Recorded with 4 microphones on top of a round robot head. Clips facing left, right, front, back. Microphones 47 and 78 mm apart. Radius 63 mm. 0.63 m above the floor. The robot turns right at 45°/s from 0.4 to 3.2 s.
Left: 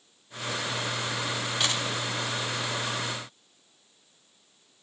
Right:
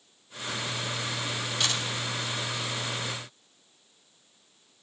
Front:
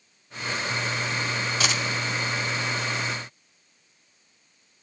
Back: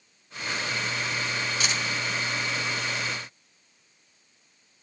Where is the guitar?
No guitar in this recording.